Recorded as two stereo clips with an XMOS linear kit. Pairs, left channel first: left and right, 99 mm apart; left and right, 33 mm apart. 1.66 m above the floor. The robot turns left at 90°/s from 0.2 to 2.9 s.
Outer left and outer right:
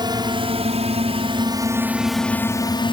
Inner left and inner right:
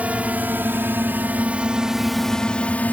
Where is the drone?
45° right (ahead or behind); by 2.9 s 50° left (ahead or behind).